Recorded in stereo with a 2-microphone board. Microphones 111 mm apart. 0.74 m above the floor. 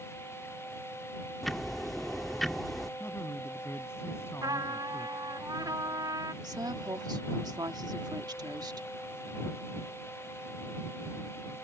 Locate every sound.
1.4 s ticking: centre (ahead or behind)
3.0 s a man speaking: 25° left (ahead or behind)
4.4 s a trumpet: 40° right (ahead or behind)
6.4 s a woman speaking: 40° right (ahead or behind)